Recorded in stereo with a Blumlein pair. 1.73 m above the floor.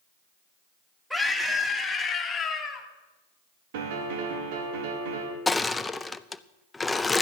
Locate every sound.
1.1 s a scream: straight ahead, 3 m; by 2.9 s 25° left, 2.5 m
3.7 s a piano: 50° right, 2 m
5.5 s crushing: 10° left, 0.5 m